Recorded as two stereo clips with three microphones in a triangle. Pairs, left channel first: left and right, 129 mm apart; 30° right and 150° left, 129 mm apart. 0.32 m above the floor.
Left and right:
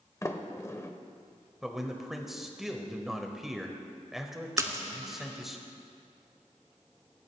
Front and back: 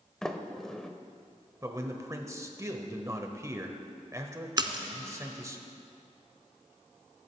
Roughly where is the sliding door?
Ahead left.